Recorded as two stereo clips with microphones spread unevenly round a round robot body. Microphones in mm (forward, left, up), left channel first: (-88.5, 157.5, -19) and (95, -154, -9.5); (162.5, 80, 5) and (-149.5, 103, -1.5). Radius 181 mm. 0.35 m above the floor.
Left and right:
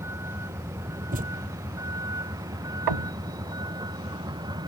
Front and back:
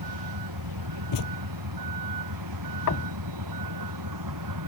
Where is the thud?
10° left.